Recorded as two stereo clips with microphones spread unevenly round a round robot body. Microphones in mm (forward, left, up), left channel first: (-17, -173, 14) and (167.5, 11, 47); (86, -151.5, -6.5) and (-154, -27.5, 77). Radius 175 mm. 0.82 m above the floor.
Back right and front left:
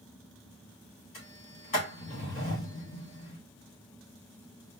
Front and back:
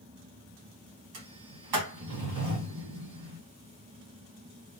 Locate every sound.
1.1 s a sliding door: 160° left, 2 m